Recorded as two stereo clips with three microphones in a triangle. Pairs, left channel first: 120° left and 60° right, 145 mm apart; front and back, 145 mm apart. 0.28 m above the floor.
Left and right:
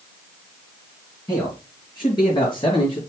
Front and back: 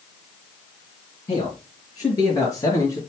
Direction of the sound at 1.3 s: 55° left.